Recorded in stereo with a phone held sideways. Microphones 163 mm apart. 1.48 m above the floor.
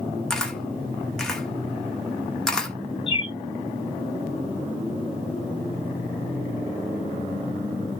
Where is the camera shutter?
5° left (ahead or behind), 0.9 m.